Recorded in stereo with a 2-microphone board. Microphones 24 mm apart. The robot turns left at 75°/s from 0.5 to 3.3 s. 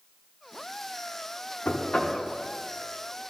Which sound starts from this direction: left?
Knocking, at 1.6 s.